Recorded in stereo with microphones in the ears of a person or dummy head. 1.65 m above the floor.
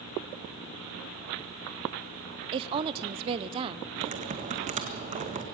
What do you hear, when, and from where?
2.5 s a woman speaking: 35° right (ahead or behind), 0.7 m
4.0 s typing on a keyboard: 30° right (ahead or behind), 1.8 m